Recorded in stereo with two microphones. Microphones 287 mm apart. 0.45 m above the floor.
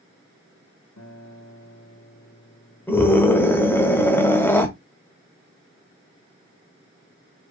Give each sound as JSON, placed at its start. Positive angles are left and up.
{"t": 1.0, "sound": "a guitar", "side_deg": 80, "distance_m": 1.4}
{"t": 2.9, "sound": "a scream", "side_deg": 10, "distance_m": 1.4}